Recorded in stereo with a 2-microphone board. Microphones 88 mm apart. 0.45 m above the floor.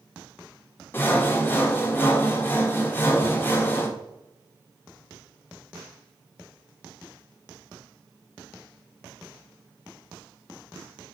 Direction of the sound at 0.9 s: 25° left (ahead or behind).